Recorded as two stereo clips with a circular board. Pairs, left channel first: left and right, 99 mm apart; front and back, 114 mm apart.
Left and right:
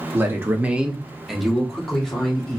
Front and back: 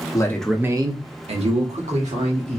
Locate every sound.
0.1 s a man speaking: 35° right, 0.7 m; by 2.6 s 175° left, 2.5 m